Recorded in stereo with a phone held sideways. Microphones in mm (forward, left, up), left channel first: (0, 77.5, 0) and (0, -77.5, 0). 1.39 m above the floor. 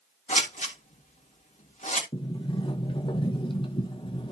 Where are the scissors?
50° left (ahead or behind), 3 m.